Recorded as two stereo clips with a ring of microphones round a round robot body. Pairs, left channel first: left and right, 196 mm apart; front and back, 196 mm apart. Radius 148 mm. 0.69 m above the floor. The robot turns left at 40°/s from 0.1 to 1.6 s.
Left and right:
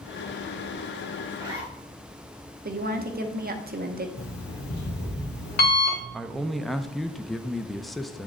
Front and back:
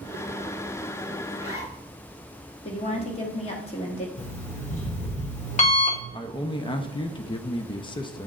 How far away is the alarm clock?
About 1.5 m.